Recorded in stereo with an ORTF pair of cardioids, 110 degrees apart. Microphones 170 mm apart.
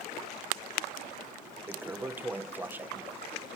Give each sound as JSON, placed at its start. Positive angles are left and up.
{"t": 1.7, "sound": "a toilet flushing", "azimuth_deg": -10}